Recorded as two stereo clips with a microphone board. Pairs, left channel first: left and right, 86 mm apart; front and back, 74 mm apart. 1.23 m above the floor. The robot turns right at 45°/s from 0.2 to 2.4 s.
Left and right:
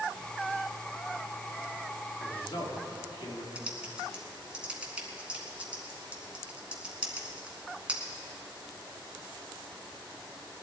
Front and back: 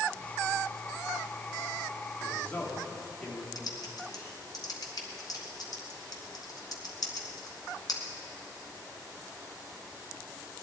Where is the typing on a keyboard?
15° right, 2 m.